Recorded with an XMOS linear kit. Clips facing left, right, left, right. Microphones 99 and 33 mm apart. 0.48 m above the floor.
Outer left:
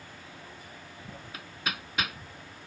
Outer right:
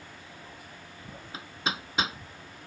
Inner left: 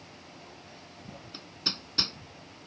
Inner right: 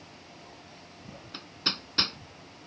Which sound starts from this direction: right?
Hammering, at 1.3 s.